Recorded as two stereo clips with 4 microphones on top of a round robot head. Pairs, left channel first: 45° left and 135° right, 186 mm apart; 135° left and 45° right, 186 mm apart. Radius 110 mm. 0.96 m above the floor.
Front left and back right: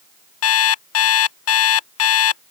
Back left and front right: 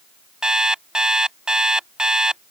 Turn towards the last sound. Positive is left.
turn(degrees=40)